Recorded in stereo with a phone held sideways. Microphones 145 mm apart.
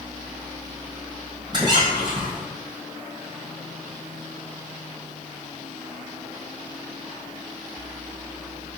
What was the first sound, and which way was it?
A squeak, 35° right (ahead or behind).